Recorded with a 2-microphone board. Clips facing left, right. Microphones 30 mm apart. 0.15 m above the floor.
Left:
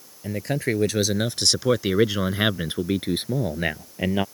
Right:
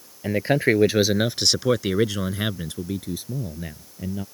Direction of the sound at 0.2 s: 35° right (ahead or behind).